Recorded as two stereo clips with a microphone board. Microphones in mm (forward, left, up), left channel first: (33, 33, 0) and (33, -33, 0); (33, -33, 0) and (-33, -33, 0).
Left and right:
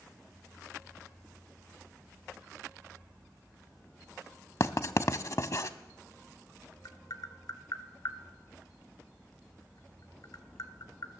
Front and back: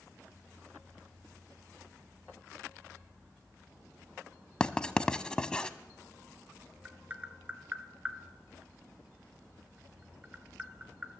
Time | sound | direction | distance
4.6 | writing | 70° left | 0.6 m
6.8 | tapping | 110° left | 1.2 m